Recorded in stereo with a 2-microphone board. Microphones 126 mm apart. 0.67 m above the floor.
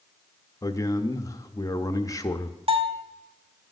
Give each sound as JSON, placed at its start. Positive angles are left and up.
{"t": 0.6, "sound": "a man speaking", "side_deg": 25, "distance_m": 0.6}
{"t": 2.7, "sound": "a bell", "side_deg": -45, "distance_m": 0.8}